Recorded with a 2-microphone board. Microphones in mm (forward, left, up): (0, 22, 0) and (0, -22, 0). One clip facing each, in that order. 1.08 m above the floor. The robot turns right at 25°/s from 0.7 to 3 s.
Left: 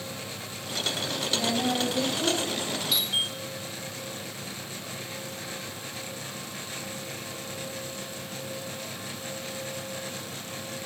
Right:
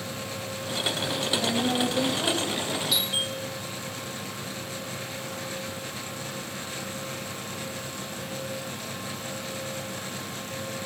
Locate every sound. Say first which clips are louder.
1.3 s a woman speaking: even; 160° left, 5.5 m; by 2.8 s 165° right, 5.5 m
2.9 s a doorbell: left 2 dB; 5° left (ahead or behind), 4 m